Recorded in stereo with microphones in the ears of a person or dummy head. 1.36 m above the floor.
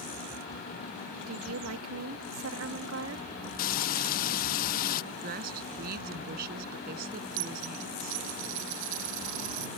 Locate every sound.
1.3 s a woman speaking: 80° right
3.6 s frying: 45° left (ahead or behind)
5.1 s a woman speaking: 50° right (ahead or behind)
7.4 s a dropped coin: 70° right (ahead or behind)